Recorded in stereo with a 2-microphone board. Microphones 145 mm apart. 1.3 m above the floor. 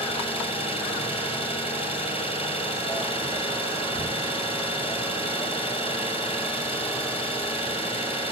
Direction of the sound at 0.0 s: 40° left (ahead or behind).